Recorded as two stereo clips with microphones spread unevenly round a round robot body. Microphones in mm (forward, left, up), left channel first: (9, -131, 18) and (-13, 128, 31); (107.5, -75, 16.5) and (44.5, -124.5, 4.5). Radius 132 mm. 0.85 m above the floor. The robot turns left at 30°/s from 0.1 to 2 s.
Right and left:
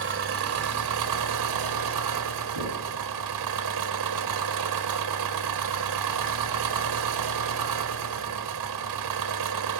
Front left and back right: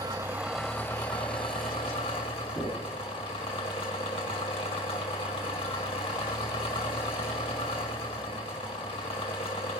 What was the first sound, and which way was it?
An engine running, 140° left.